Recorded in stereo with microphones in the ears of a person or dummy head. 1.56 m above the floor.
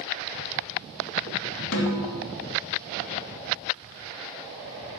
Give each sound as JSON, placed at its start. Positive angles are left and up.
{"t": 1.7, "sound": "a snare drum", "side_deg": 75, "distance_m": 2.5}